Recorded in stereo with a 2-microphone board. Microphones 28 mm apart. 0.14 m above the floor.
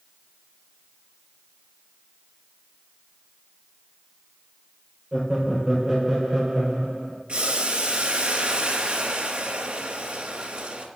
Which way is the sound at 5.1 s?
20° right (ahead or behind).